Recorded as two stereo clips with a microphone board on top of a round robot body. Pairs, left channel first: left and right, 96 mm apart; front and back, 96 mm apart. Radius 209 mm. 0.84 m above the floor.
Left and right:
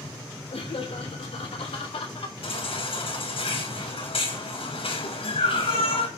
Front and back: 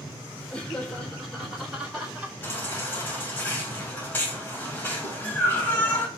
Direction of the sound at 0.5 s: 75° left.